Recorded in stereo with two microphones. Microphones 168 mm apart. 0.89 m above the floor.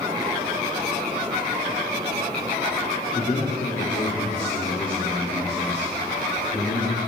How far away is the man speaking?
About 1.8 m.